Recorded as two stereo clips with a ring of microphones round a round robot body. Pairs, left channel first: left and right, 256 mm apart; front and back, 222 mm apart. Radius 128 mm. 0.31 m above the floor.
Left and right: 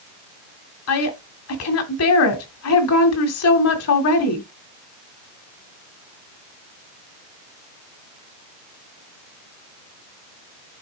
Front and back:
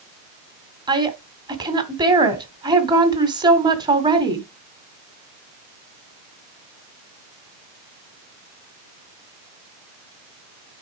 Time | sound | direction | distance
0.9 | a woman speaking | 110° left | 2 m